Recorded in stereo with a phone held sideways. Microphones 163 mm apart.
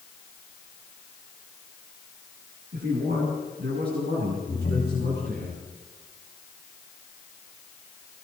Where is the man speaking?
80° right, 7 m; by 5.5 s 85° right, 10 m.